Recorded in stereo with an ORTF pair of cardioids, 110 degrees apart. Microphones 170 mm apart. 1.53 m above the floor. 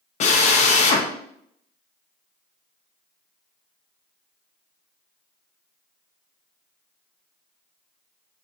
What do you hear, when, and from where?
0.2 s a drill: 45° left, 0.6 m